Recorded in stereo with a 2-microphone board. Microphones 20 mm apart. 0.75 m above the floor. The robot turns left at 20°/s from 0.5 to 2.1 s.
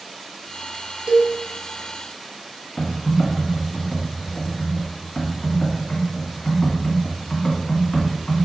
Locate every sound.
1.1 s a cowbell: 60° right (ahead or behind), 1.2 m
2.8 s typing on a keyboard: 60° left (ahead or behind), 1.3 m